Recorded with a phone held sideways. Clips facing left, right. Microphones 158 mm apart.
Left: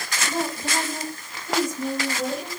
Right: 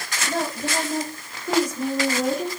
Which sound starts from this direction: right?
A woman speaking, at 0.3 s.